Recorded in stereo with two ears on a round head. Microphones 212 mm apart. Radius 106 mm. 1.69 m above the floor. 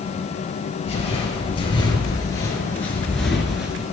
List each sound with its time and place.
0.8 s footsteps: 30° left (ahead or behind), 2 m; by 3.8 s 5° right (ahead or behind), 1.6 m